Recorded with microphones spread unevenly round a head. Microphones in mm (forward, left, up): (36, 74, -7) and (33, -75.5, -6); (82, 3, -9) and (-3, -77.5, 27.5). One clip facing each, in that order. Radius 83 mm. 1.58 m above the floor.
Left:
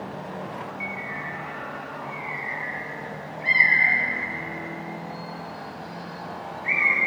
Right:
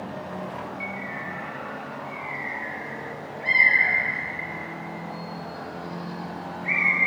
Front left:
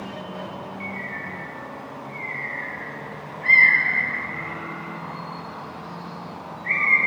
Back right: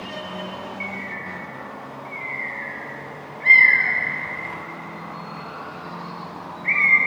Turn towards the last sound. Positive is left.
turn(degrees=175)